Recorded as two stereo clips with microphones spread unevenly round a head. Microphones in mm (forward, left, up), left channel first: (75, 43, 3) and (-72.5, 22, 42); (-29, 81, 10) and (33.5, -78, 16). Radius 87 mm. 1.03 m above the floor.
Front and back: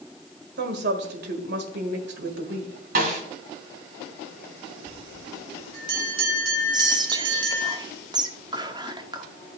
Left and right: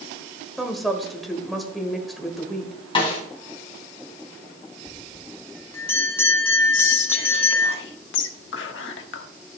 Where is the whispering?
120° left, 1.4 m.